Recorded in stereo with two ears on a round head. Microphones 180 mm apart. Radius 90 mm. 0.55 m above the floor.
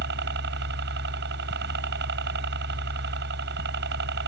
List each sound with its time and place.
0.0 s a helicopter: 60° right (ahead or behind)